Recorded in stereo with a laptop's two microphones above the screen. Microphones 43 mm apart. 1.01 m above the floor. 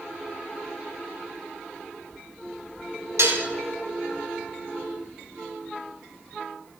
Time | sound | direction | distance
3.2 | dishes clattering | 85° right | 0.8 m